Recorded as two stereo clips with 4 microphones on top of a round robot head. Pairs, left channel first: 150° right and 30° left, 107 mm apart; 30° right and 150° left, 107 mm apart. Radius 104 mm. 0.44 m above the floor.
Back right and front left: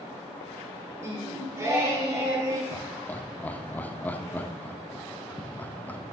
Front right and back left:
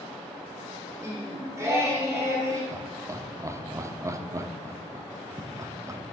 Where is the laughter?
155° left, 0.8 m.